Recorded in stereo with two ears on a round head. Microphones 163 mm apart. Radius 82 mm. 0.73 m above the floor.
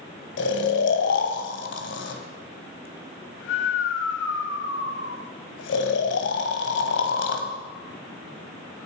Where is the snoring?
75° left (ahead or behind), 1.6 m.